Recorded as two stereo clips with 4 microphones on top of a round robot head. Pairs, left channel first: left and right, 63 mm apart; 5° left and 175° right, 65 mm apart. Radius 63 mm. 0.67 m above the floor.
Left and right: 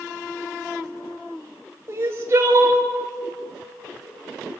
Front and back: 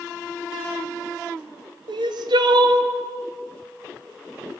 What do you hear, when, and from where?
1.9 s crying: 150° right, 1.5 m